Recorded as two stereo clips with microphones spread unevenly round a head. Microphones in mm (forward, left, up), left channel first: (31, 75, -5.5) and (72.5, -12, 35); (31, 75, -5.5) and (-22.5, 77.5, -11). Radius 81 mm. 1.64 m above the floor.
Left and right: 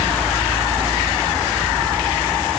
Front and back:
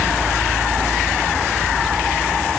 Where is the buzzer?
No buzzer in this recording.